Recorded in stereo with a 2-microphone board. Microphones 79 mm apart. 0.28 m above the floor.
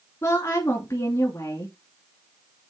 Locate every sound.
0.2 s a woman speaking: 35° left (ahead or behind), 3 m